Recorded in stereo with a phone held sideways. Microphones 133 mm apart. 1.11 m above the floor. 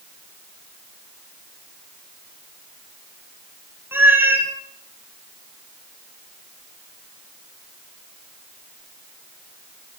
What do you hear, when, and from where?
3.9 s a cat meowing: 15° right (ahead or behind), 1.3 m